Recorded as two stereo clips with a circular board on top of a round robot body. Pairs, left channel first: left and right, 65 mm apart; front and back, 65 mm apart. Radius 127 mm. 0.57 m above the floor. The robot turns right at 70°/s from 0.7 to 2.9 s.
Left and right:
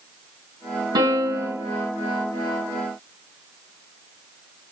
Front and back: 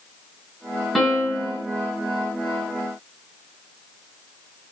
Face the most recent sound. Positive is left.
turn(degrees=50)